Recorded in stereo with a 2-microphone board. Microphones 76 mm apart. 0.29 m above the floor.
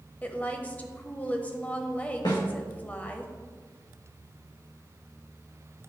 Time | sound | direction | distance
0.2 | a woman speaking | 20° left (ahead or behind) | 1.0 m
2.2 | a snare drum | 70° left (ahead or behind) | 3.5 m